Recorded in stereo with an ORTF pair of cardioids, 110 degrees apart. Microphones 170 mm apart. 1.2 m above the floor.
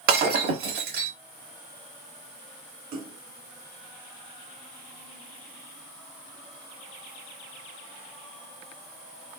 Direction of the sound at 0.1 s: 65° right.